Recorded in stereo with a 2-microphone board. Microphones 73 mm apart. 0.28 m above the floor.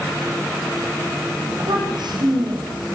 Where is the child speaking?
85° right, 9.5 m.